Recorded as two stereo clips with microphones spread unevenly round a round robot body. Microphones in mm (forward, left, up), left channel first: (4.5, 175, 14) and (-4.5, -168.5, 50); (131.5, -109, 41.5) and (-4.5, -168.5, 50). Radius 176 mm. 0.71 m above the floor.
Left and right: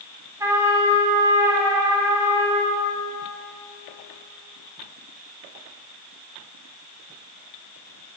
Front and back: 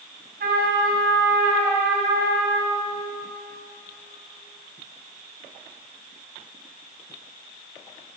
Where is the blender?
No blender in this recording.